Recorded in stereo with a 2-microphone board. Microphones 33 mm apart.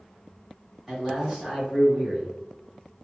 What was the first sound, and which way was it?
A man speaking, 5° right (ahead or behind).